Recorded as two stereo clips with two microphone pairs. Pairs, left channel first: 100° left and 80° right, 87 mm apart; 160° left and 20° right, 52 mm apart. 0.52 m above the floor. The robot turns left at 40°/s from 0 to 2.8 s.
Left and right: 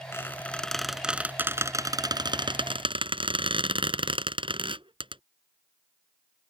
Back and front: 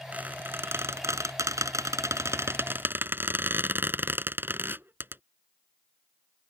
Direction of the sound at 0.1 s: 40° left.